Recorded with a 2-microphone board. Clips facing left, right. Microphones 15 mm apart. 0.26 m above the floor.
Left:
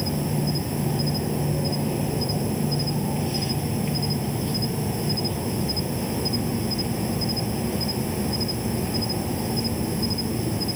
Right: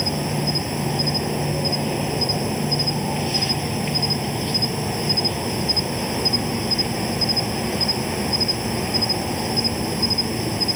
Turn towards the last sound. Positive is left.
turn(degrees=-45)  # may be behind; listen again after turning